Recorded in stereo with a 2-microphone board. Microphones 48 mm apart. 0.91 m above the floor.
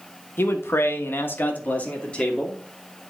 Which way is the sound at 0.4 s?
50° left (ahead or behind).